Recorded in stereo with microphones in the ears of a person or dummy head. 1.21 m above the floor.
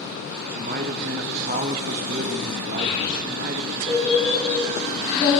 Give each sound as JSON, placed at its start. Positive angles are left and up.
{"t": 0.5, "sound": "a man speaking", "side_deg": -50, "distance_m": 0.7}
{"t": 2.8, "sound": "a child speaking", "side_deg": 35, "distance_m": 4.5}